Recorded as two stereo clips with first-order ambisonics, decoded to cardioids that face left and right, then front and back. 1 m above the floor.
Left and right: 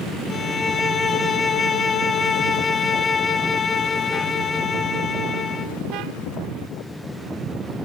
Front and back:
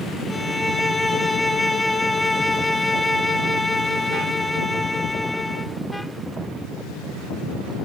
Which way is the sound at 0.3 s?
75° left.